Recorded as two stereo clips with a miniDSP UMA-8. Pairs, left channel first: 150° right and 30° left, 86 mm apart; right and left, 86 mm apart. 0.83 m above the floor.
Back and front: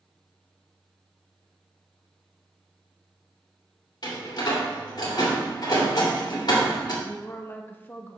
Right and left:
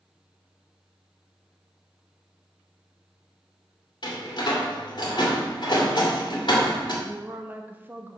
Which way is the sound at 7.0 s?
150° left.